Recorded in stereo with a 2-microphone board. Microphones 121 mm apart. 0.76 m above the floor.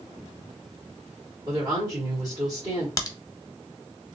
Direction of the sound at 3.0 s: 30° left (ahead or behind).